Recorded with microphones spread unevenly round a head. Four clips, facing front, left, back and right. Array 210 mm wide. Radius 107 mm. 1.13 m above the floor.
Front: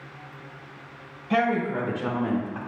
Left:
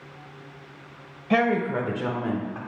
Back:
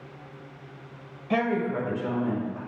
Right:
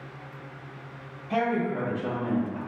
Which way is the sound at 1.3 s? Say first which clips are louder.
Left 4 dB, front 2 dB; 95° left.